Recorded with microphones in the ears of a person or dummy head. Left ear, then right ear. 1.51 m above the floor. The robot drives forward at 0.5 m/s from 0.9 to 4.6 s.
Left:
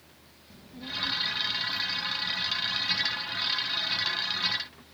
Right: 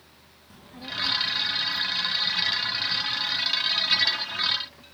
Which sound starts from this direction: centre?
A child speaking, at 0.5 s.